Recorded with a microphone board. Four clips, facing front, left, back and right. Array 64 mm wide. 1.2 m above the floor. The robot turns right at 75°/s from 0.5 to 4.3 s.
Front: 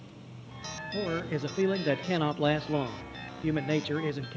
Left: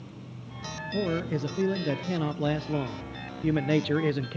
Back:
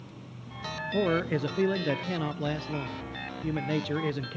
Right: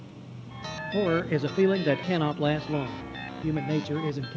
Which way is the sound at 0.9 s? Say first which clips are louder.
Right 4 dB, back 5 dB; 140° right.